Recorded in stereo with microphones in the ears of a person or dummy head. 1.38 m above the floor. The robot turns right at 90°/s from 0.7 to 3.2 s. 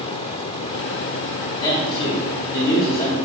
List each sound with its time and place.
1.6 s a man speaking: 25° left, 1.2 m; by 3.2 s 165° left, 1.2 m